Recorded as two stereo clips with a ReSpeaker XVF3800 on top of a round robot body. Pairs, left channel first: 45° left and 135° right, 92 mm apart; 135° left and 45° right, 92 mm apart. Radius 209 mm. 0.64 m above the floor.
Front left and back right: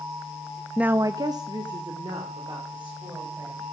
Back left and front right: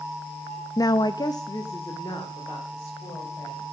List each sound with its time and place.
0.8 s a woman speaking: 145° left, 0.6 m; by 3.6 s 170° right, 4.5 m